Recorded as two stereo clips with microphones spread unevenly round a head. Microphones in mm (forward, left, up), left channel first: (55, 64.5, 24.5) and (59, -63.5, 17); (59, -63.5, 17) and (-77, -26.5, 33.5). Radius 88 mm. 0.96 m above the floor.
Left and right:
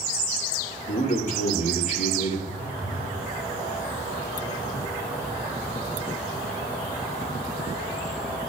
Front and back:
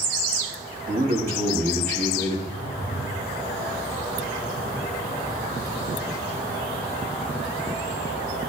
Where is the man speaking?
130° left, 3.5 m.